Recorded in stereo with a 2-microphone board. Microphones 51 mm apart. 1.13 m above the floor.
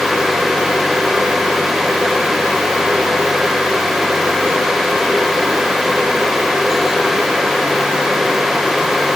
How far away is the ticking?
I don't hear ticking.